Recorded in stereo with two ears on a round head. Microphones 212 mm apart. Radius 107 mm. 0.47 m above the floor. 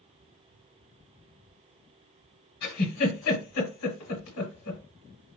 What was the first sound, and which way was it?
A giggle, 75° left (ahead or behind).